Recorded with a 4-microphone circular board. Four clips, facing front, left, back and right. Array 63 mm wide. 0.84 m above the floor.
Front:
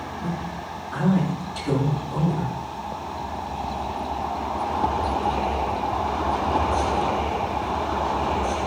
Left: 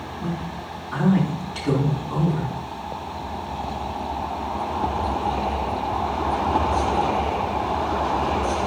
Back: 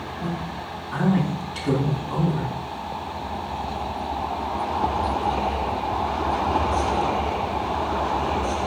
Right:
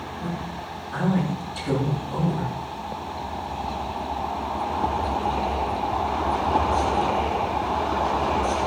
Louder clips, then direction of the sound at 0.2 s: Left 3 dB, back 2 dB; 145° left.